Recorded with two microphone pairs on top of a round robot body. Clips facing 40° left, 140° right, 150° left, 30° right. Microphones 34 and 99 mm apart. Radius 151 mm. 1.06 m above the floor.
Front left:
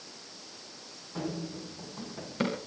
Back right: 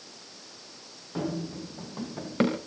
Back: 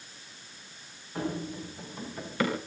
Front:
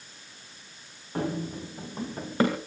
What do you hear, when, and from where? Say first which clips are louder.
1.1 s running footsteps: back right 4 dB, front 3 dB; 80° right, 5.5 m; by 2.6 s 90° right, 4.5 m